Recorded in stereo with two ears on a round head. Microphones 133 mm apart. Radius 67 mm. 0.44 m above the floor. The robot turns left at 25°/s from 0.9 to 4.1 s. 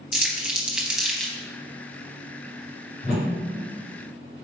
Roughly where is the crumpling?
Centre.